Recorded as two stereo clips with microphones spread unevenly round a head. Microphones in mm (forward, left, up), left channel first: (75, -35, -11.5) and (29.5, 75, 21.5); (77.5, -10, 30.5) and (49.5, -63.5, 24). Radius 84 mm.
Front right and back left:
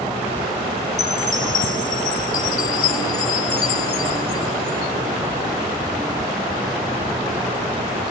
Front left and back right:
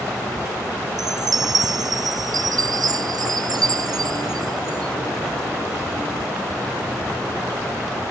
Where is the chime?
110° right.